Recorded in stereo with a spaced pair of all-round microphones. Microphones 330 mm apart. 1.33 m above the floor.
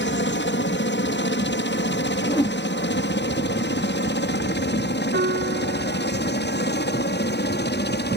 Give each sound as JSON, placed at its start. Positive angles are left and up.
{"t": 0.0, "sound": "a helicopter", "side_deg": 35}
{"t": 2.3, "sound": "a whoosh", "side_deg": 15}
{"t": 5.1, "sound": "a piano", "side_deg": -35}